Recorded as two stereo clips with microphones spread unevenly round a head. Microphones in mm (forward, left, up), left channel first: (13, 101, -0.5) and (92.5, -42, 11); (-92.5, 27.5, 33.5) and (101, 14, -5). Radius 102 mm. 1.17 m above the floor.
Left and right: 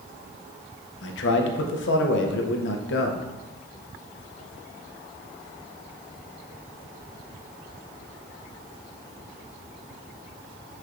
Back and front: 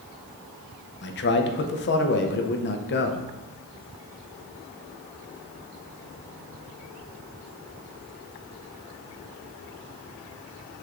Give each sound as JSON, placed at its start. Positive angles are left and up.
{"t": 1.0, "sound": "a man speaking", "azimuth_deg": 135, "distance_m": 0.5}